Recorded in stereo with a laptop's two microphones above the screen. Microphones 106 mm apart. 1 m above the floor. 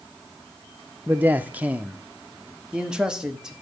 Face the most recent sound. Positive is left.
turn(degrees=-5)  # may be behind; listen again after turning